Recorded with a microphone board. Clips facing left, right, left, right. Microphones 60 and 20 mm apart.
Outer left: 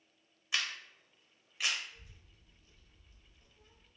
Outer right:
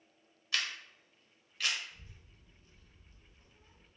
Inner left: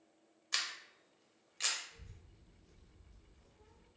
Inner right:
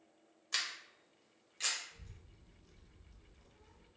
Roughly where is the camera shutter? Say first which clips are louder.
Even, even; centre.